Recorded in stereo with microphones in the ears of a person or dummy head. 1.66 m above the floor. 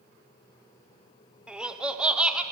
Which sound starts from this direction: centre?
Laughter, at 1.5 s.